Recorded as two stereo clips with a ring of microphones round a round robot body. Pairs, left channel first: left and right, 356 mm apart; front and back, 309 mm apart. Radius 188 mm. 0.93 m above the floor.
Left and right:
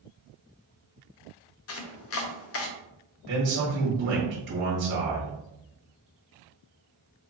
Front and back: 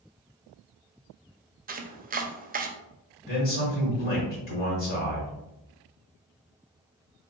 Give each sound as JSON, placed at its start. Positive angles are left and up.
{"t": 1.7, "sound": "chopping", "azimuth_deg": 125, "distance_m": 0.5}
{"t": 3.2, "sound": "a man speaking", "azimuth_deg": -40, "distance_m": 1.3}